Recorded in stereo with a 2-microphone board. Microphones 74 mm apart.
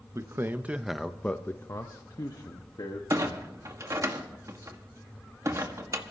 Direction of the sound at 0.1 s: 40° right (ahead or behind).